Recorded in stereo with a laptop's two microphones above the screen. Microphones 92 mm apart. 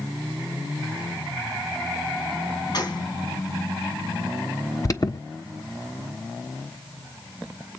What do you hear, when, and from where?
2.7 s a gunshot: 50° left (ahead or behind), 2.5 m
4.8 s an alarm: 40° left (ahead or behind), 1.4 m